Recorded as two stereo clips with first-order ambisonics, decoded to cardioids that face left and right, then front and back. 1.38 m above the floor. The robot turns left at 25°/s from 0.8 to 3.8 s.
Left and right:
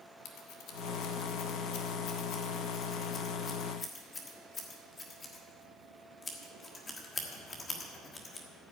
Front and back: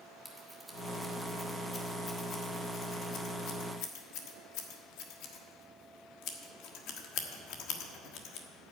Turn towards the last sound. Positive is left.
turn(degrees=20)